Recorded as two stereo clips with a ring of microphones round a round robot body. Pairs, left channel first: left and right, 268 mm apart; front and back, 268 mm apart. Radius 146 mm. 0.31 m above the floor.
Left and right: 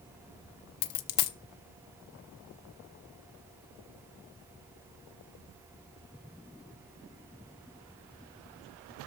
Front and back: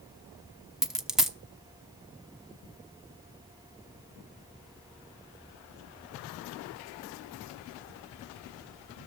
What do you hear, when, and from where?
0.8 s a dropped coin: 90° left, 0.8 m